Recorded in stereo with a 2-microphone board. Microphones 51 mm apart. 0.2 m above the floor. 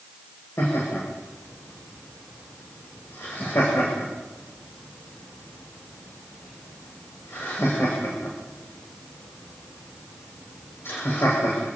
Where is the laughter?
60° left (ahead or behind), 7.5 m.